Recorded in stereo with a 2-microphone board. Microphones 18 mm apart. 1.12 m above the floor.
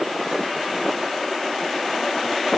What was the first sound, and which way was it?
Only background noise.